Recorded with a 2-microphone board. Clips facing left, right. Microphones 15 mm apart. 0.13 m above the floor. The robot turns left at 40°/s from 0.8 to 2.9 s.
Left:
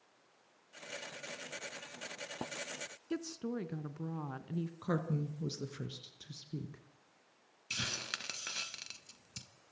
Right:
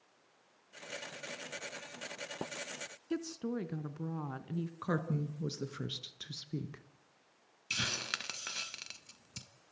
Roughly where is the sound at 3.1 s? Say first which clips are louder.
Right 2 dB; centre.